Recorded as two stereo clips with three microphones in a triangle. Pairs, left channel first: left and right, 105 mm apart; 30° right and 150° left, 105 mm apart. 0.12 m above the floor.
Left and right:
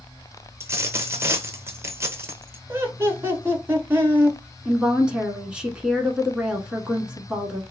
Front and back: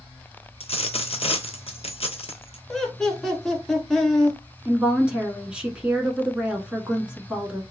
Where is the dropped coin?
25° right, 0.6 m.